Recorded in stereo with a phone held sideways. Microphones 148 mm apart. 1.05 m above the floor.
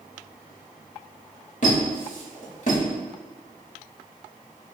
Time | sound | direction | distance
1.6 | a squeak | 55° left (ahead or behind) | 1.2 m